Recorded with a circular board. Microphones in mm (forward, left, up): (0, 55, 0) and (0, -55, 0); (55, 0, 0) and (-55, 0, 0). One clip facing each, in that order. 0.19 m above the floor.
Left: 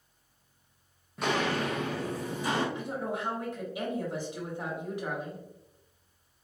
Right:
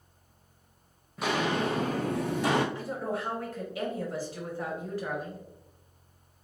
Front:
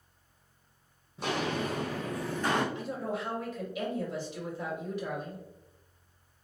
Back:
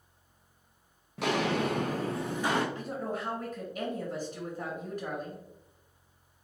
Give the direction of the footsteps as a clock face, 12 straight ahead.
6 o'clock.